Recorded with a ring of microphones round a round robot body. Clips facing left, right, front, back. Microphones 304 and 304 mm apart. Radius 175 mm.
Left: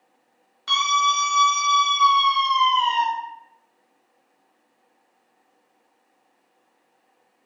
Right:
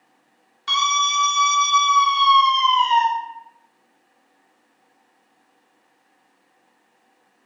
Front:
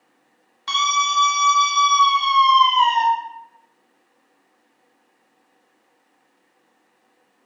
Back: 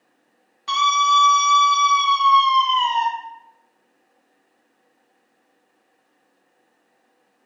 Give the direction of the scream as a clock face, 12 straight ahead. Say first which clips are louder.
Even, back 4 dB; 12 o'clock.